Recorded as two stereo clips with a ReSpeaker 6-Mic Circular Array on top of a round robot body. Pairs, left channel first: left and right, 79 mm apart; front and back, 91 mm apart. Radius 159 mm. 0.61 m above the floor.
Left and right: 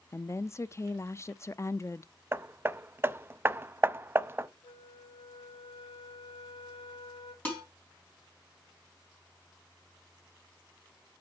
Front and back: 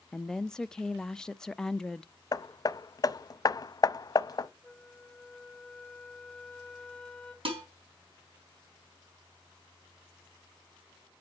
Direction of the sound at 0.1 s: 75° left.